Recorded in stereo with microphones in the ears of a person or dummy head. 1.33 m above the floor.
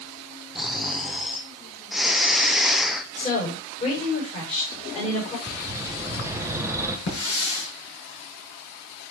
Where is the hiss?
60° left (ahead or behind), 6.5 m.